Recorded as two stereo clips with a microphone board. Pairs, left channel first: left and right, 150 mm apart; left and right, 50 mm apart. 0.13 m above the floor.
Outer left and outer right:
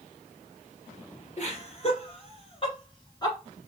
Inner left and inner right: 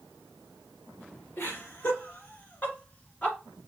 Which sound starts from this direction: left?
Laughter, at 1.4 s.